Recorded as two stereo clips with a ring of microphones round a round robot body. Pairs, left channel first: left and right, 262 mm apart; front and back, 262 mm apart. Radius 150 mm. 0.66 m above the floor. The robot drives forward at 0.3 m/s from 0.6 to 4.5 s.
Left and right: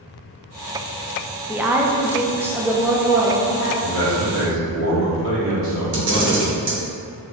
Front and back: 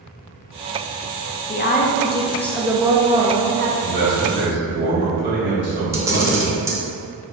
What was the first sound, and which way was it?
A woman speaking, 10° right.